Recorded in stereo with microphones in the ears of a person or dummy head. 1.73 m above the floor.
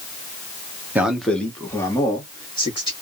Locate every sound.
0.9 s a man speaking: 5° right (ahead or behind), 0.5 m; by 2.9 s 30° left (ahead or behind), 1.5 m